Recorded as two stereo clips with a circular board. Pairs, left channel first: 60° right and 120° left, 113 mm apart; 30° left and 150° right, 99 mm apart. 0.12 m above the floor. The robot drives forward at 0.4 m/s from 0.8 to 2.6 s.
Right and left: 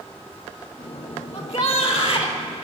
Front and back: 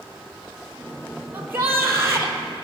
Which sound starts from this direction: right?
A shout, at 1.3 s.